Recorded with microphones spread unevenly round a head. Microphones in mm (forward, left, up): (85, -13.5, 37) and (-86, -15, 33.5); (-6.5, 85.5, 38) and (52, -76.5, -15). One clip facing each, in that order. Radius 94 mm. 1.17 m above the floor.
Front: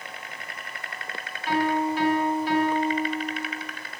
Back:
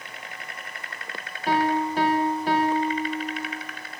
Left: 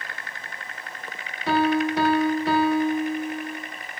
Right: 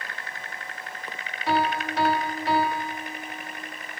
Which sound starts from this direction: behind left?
A piano, at 1.5 s.